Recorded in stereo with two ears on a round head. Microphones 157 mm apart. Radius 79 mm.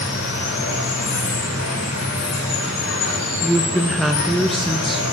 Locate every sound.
0.0 s running water: 80° left, 4.5 m
3.4 s a woman speaking: centre (ahead or behind), 0.8 m